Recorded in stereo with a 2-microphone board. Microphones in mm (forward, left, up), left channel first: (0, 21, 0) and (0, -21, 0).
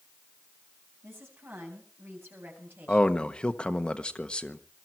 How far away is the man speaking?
About 1.2 m.